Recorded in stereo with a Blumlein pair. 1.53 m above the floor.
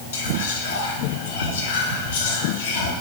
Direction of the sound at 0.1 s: 60° left.